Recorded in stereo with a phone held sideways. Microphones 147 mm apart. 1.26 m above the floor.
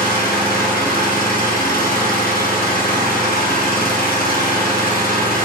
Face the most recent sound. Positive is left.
turn(degrees=80)